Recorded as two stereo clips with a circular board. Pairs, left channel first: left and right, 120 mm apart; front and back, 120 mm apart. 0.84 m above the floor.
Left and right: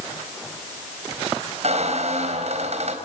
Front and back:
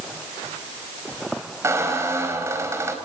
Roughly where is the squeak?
Behind right.